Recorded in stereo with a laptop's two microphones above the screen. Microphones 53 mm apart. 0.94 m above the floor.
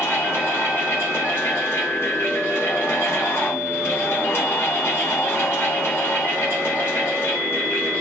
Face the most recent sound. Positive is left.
turn(degrees=50)  # may be behind; listen again after turning